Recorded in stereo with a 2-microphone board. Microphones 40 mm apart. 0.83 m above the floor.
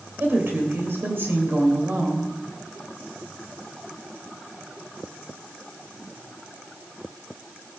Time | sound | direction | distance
0.2 | a woman speaking | 70° right (ahead or behind) | 3 m